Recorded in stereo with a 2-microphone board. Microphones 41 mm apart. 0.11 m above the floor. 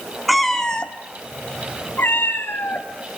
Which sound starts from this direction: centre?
A cat meowing, at 0.3 s.